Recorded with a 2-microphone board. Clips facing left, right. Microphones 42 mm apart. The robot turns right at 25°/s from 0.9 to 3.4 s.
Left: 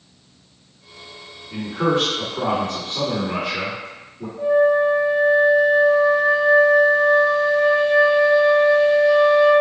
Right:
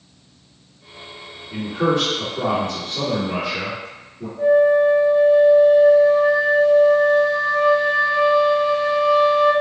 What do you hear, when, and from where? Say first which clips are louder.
1.5 s a man speaking: even; 45° left, 1.8 m; by 4.3 s 90° left, 1.8 m
4.4 s a flute: right 2 dB; 10° right (ahead or behind), 1.7 m